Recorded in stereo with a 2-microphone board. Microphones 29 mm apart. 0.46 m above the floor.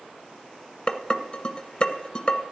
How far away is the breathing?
I don't hear breathing.